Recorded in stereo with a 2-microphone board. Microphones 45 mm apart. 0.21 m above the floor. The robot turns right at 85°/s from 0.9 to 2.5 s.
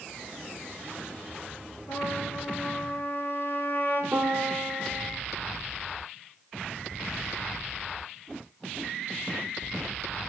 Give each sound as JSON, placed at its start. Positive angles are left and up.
{"t": 1.9, "sound": "a trumpet", "azimuth_deg": 80, "distance_m": 2.5}
{"t": 4.1, "sound": "a piano", "side_deg": -30, "distance_m": 3.0}